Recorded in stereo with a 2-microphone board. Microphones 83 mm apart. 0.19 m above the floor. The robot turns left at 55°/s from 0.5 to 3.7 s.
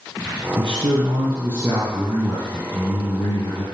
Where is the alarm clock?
I don't hear an alarm clock.